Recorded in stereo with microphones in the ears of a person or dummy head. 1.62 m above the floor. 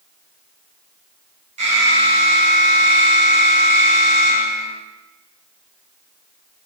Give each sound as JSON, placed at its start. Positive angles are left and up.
{"t": 1.6, "sound": "an alarm", "side_deg": -35, "distance_m": 3.0}